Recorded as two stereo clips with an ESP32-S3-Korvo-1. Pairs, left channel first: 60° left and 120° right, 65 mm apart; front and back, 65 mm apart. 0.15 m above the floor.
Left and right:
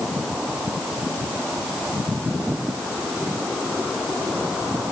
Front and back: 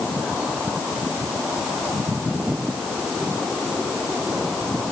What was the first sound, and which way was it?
Only background noise.